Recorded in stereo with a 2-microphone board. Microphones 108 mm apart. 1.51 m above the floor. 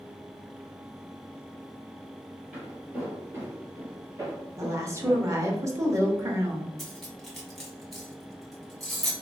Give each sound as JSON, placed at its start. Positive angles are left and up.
{"t": 2.5, "sound": "footsteps", "side_deg": -15, "distance_m": 1.8}
{"t": 4.6, "sound": "a woman speaking", "side_deg": -30, "distance_m": 0.9}
{"t": 6.8, "sound": "cutlery clinking", "side_deg": 0, "distance_m": 1.1}